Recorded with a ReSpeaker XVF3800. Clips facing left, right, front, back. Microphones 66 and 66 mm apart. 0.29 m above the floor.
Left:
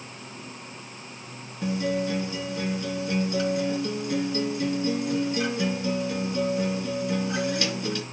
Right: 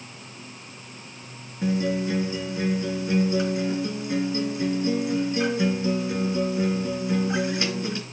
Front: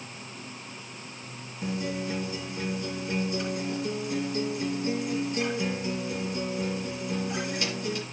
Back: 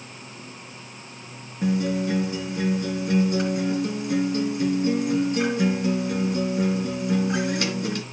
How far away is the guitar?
About 3.5 m.